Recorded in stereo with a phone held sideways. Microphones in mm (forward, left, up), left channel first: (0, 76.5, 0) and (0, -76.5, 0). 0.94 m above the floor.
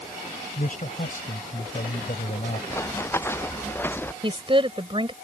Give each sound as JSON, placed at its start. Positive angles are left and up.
{"t": 0.6, "sound": "a man speaking", "side_deg": 60}
{"t": 2.7, "sound": "running footsteps", "side_deg": 15}
{"t": 4.2, "sound": "a woman speaking", "side_deg": -35}